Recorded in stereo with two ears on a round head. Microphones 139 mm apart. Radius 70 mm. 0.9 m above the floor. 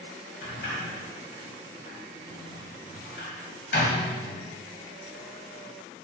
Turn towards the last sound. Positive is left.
turn(degrees=70)  # may be behind; listen again after turning